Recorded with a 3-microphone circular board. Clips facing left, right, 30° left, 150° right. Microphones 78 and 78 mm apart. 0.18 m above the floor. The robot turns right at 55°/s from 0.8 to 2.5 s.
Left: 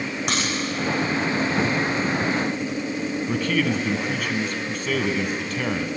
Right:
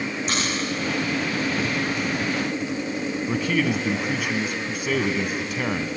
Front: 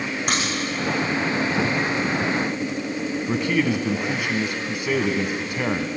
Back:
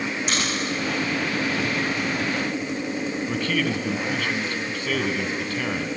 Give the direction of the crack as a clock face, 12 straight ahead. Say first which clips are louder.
Left 2 dB, front 3 dB; 10 o'clock.